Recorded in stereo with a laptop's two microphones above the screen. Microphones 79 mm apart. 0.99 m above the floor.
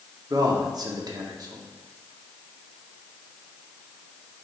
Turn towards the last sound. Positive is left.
turn(degrees=-55)  # may be behind; listen again after turning